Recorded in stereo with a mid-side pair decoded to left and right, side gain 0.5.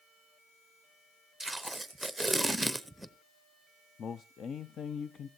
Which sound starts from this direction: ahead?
Tape being pulled, at 1.4 s.